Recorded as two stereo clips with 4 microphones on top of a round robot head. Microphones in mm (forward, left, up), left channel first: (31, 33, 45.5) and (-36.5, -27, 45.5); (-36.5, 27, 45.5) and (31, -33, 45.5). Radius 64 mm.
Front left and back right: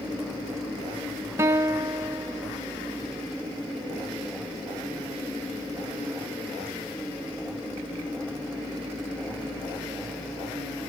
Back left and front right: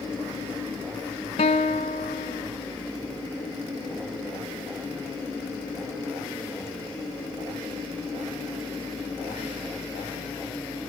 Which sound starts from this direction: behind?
A guitar, at 1.4 s.